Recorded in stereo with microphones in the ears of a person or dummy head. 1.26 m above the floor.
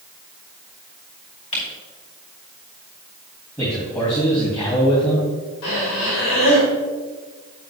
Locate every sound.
1.5 s a camera shutter: 35° left (ahead or behind), 3.5 m
3.6 s a man speaking: 10° left (ahead or behind), 2.5 m
5.6 s breathing: 80° left, 3 m